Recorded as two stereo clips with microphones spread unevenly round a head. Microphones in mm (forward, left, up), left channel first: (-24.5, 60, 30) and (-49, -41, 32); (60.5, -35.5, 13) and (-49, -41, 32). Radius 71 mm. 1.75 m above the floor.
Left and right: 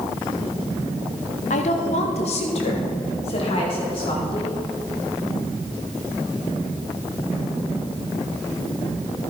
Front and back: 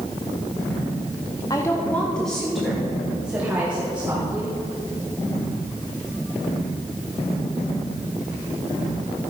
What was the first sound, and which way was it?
A woman speaking, 75° left.